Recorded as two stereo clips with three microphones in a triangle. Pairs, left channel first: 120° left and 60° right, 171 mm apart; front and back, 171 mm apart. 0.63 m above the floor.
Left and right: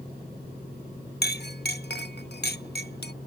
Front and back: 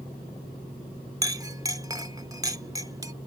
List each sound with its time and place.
1.2 s a clink: 110° left